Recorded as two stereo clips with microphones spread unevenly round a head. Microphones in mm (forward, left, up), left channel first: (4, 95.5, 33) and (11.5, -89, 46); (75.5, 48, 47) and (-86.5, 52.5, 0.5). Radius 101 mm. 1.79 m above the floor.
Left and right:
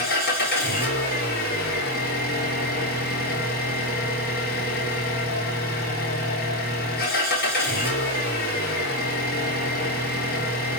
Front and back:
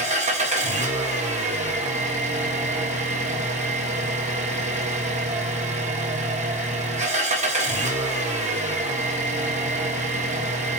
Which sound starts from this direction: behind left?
An engine running, at 0.0 s.